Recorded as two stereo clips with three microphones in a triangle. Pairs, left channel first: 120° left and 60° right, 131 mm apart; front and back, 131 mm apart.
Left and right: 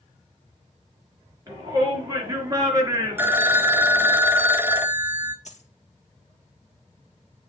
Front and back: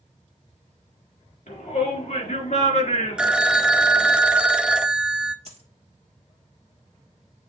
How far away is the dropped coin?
About 1.7 m.